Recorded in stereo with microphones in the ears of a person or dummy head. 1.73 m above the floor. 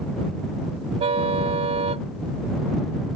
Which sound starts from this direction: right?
A car horn, at 1.0 s.